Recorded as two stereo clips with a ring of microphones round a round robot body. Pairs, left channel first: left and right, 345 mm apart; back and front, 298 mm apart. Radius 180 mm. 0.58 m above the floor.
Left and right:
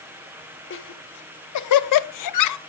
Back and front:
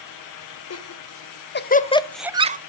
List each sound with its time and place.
0.7 s laughter: 145° left, 1.9 m; by 2.6 s 60° left, 0.9 m